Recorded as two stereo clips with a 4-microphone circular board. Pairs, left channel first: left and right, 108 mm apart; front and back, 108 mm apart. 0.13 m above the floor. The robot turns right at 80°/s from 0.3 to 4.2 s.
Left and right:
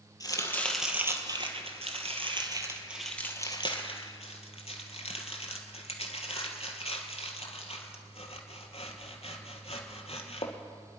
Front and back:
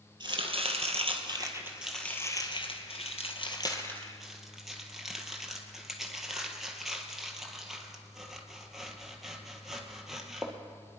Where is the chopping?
140° left, 1.9 m; by 10.5 s 95° left, 1.9 m.